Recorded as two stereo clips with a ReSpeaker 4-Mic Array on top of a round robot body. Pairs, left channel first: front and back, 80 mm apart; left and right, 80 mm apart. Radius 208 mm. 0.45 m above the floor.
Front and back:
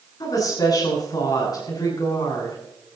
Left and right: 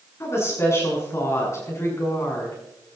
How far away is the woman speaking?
About 7.5 m.